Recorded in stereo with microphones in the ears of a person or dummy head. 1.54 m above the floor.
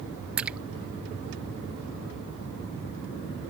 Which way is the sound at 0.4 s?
10° right (ahead or behind).